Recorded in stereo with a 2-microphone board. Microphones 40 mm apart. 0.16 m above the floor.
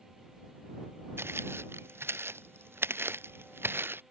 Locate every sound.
1.2 s footsteps: 80° right; by 4.0 s 65° right (ahead or behind)